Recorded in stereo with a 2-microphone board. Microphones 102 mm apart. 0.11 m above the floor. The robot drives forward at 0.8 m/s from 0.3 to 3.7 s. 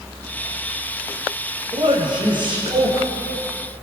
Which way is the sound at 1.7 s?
50° right (ahead or behind).